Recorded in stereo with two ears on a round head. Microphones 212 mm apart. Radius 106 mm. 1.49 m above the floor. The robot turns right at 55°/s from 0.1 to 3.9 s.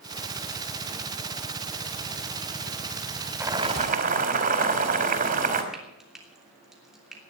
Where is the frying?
Centre (ahead or behind), 3 m.